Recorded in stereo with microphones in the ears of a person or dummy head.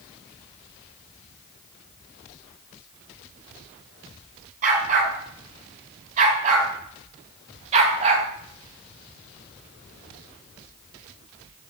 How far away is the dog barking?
About 7 m.